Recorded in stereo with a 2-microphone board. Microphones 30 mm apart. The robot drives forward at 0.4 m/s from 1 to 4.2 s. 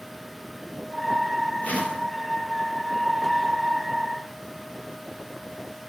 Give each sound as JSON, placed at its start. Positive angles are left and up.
{"t": 1.6, "sound": "a whoosh", "side_deg": 60, "distance_m": 2.5}